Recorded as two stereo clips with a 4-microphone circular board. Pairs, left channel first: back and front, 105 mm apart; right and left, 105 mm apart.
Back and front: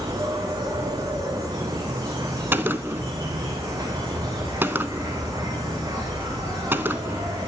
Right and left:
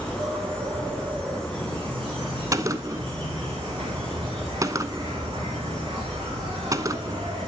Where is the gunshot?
60° left, 0.7 m.